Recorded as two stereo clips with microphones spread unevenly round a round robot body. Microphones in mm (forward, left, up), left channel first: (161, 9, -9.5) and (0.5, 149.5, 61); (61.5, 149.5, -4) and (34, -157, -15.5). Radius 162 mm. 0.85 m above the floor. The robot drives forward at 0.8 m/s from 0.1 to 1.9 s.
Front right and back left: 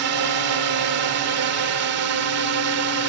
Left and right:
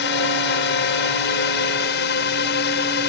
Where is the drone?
140° left; by 3.1 s 145° left.